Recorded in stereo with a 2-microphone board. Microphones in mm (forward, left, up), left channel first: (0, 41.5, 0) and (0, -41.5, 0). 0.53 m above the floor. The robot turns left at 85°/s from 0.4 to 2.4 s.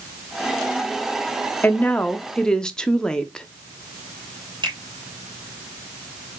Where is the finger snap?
65° right (ahead or behind), 3 m.